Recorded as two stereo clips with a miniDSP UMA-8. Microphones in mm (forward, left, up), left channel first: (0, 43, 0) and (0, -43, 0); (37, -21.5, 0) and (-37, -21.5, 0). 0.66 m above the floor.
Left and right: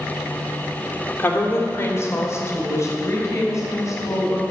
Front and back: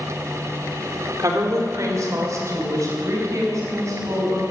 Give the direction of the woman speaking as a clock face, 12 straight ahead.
7 o'clock.